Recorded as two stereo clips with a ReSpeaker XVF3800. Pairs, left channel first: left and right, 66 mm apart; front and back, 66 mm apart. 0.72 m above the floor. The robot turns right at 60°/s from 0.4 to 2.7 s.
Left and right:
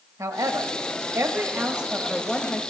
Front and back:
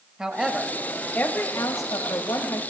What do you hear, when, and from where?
0.2 s a woman speaking: 100° right, 0.9 m; by 2.6 s 35° left, 0.9 m